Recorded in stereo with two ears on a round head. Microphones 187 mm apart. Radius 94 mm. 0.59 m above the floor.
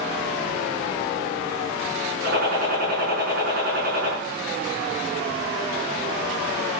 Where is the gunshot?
45° right (ahead or behind), 6 m.